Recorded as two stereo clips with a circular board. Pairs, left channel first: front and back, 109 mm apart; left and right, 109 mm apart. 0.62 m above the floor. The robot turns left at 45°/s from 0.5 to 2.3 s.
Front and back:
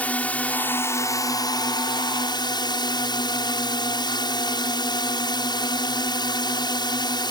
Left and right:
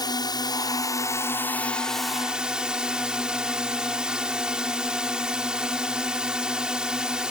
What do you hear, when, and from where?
0.0 s a drone: 70° left; by 7.3 s 10° right